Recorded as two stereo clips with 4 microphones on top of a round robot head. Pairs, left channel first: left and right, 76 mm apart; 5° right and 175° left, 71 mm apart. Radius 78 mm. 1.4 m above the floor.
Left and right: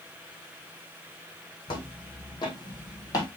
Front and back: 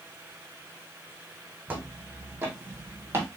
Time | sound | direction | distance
1.7 | footsteps | 110° left | 3.5 m